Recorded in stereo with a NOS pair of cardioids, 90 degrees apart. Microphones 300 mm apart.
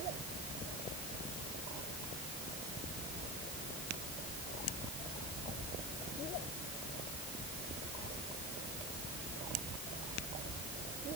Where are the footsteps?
I don't hear footsteps.